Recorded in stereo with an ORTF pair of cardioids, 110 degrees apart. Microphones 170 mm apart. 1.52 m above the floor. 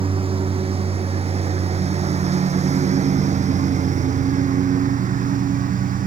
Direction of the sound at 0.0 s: 35° right.